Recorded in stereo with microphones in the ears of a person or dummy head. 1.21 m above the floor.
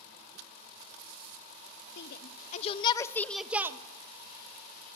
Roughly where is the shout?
Left.